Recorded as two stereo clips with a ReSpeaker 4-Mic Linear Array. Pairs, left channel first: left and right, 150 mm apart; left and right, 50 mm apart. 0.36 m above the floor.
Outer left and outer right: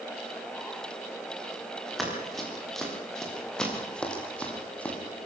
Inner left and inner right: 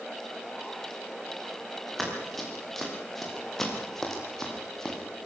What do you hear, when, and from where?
2.0 s running footsteps: centre (ahead or behind), 9 m; by 5.0 s 10° left (ahead or behind), 6.5 m